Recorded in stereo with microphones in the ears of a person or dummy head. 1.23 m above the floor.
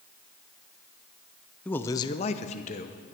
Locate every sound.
1.6 s a man speaking: 10° left (ahead or behind), 0.6 m; by 3.0 s 35° left (ahead or behind), 0.9 m